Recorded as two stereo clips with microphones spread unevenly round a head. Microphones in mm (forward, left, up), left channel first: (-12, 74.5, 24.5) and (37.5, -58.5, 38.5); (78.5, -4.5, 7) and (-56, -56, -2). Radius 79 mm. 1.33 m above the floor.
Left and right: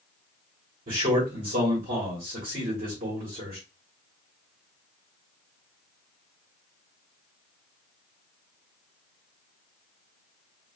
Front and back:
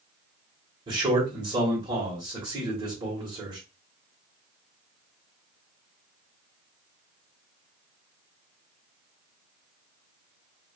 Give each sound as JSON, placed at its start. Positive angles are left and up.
{"t": 0.9, "sound": "a man speaking", "azimuth_deg": -100, "distance_m": 1.4}